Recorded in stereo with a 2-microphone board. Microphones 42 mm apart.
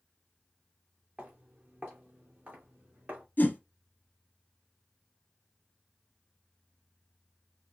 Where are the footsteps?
35° right (ahead or behind), 3 m; by 3.2 s 45° right (ahead or behind), 4 m.